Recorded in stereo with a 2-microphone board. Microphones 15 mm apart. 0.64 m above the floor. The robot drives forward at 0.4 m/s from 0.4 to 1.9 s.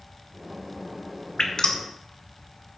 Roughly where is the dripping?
Left.